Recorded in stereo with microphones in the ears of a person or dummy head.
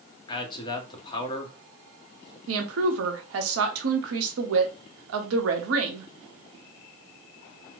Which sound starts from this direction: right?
A woman speaking, at 2.5 s.